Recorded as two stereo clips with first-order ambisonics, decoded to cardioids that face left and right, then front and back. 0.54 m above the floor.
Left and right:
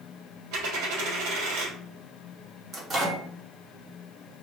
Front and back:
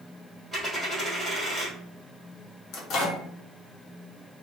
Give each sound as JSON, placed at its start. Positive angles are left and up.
{"t": 0.5, "sound": "a dropped coin", "azimuth_deg": -90, "distance_m": 1.6}
{"t": 2.7, "sound": "a microwave", "azimuth_deg": -30, "distance_m": 0.7}